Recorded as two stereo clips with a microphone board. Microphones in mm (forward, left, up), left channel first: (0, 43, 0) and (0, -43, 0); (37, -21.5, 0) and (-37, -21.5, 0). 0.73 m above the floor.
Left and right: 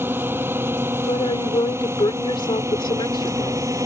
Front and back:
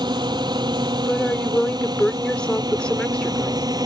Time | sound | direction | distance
0.0 | a drone | 155° right | ?
1.0 | a woman speaking | 80° left | ?